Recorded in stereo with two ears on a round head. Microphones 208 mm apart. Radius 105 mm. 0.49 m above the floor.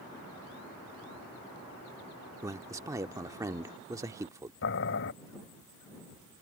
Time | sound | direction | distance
2.4 | a man speaking | 15° right (ahead or behind) | ?
4.6 | boiling | 55° left (ahead or behind) | ?